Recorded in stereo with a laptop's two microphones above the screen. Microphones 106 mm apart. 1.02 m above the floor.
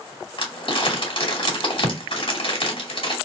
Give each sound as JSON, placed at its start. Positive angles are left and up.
{"t": 0.4, "sound": "crumpling", "side_deg": 55, "distance_m": 2.5}